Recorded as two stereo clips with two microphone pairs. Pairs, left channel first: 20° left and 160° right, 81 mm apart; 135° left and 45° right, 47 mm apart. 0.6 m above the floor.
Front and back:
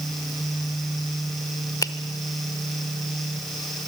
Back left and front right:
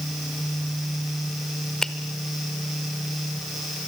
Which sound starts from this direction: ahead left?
A finger snap, at 1.8 s.